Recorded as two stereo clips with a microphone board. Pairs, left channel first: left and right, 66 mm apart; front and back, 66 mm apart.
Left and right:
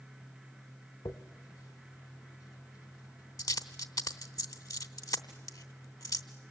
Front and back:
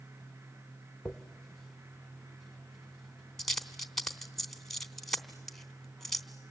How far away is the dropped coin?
About 1.0 m.